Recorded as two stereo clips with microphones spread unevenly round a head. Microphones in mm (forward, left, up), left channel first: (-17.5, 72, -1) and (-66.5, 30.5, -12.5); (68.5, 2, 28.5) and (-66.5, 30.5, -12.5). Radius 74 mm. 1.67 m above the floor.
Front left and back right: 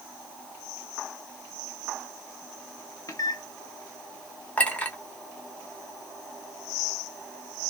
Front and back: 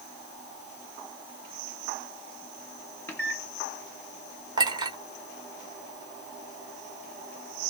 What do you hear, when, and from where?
3.1 s a microwave: 55° left, 1.2 m
4.6 s a clink: 100° left, 1.4 m